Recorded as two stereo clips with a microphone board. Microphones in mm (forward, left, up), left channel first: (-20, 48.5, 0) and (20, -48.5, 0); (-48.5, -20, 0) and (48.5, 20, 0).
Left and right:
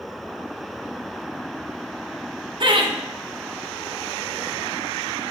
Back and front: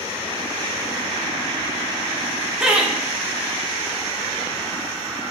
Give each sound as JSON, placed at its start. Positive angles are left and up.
{"t": 2.6, "sound": "laughter", "azimuth_deg": -55, "distance_m": 0.7}